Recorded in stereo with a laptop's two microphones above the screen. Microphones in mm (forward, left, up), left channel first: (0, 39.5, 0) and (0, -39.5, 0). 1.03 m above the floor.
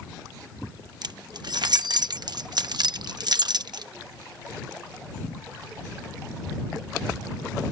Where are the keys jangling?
65° right (ahead or behind).